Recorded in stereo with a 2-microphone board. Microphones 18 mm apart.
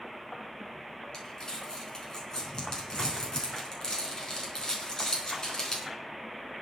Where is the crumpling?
35° left (ahead or behind), 4.5 m.